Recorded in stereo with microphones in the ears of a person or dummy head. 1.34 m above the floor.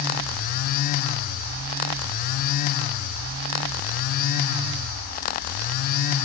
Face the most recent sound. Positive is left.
No sound to turn to.